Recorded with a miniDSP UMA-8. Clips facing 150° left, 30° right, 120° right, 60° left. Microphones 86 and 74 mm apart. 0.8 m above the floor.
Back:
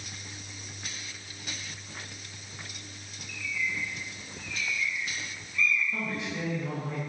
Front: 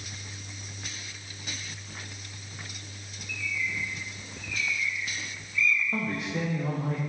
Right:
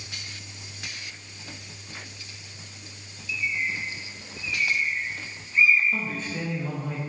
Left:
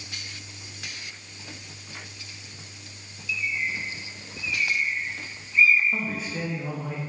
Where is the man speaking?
20° right, 1.4 m.